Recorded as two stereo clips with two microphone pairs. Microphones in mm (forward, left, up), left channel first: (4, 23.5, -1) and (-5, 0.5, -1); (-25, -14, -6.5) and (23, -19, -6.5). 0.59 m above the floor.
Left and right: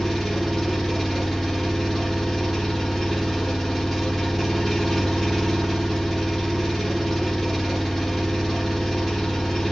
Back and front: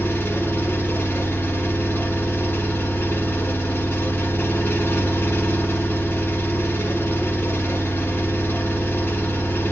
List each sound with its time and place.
0.0 s an engine running: 155° left, 0.9 m